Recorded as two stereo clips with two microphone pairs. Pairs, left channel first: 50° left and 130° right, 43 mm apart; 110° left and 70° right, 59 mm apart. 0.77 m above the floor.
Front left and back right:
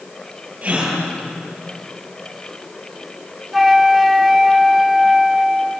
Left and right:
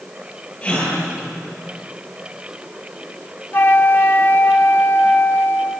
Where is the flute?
145° left, 1.0 m.